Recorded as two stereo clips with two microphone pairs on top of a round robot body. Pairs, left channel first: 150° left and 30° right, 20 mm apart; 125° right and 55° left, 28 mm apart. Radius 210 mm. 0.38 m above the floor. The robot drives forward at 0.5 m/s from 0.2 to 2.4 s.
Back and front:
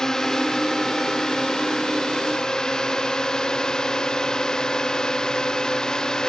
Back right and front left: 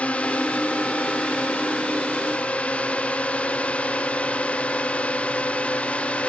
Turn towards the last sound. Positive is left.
turn(degrees=-160)